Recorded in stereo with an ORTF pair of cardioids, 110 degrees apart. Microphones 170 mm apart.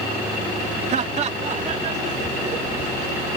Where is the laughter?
45° right.